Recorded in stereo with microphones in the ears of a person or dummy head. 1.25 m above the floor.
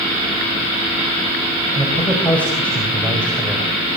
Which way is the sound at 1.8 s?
10° left (ahead or behind).